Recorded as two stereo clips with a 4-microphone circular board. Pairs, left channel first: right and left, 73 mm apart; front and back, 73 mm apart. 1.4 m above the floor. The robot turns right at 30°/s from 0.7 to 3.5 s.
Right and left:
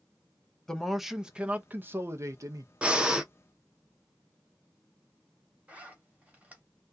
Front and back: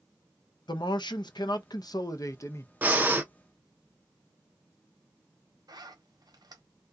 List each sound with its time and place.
0.7 s a man speaking: 5° right, 0.5 m; by 2.7 s 55° left, 0.5 m
2.8 s breathing: 145° left, 0.6 m; by 3.3 s 160° left, 0.6 m
5.7 s a zipper: 160° left, 0.9 m